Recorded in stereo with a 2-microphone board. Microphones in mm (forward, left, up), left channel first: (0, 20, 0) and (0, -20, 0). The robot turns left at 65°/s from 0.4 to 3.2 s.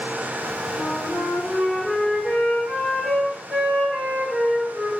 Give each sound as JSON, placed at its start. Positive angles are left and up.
{"t": 0.7, "sound": "a flute", "azimuth_deg": 100, "distance_m": 2.5}